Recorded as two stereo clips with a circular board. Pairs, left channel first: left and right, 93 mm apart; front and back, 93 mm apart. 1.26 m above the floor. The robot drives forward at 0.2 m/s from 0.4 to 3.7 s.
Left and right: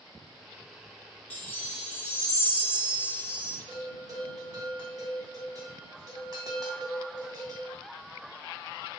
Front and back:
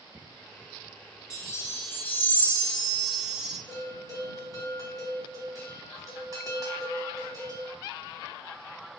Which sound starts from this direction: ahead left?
A chime, at 1.3 s.